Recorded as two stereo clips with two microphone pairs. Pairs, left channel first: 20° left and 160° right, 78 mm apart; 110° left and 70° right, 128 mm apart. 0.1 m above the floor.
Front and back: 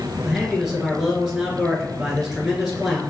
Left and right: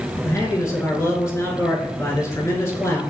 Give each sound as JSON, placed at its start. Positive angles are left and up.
{"t": 0.2, "sound": "a man speaking", "azimuth_deg": 115, "distance_m": 1.4}